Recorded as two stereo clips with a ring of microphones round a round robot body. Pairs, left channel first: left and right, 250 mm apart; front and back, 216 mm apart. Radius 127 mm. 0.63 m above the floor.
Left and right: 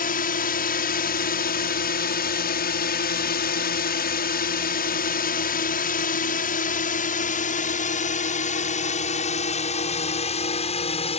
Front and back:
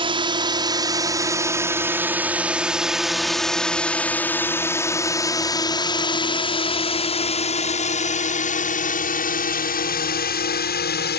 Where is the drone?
125° left; by 11.2 s 25° left.